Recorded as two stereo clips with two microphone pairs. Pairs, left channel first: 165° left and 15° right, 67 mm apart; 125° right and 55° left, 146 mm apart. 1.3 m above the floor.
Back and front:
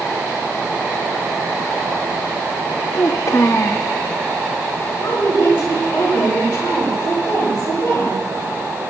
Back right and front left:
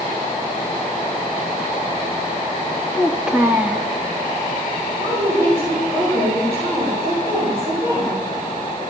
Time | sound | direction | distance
2.9 | a child speaking | 135° left | 1.3 m
5.0 | a woman speaking | 110° left | 6 m